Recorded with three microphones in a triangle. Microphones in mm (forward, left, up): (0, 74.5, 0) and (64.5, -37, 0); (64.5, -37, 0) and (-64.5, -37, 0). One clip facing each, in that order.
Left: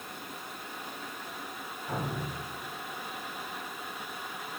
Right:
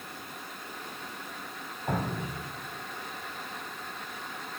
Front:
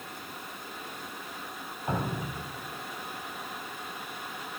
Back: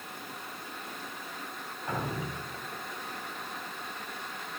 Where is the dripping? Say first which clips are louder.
Right 3 dB, front 2 dB; 60° right, 2.5 m.